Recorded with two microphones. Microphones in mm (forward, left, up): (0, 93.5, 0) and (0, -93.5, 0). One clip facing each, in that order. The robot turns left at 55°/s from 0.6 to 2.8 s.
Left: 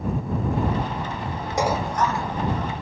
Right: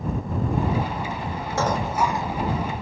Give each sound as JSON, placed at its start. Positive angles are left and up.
{"t": 1.6, "sound": "dishes clattering", "azimuth_deg": 15}